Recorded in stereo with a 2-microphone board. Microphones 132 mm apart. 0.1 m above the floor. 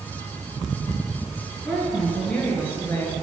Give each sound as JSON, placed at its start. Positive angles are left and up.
{"t": 1.6, "sound": "a woman speaking", "side_deg": 0, "distance_m": 1.3}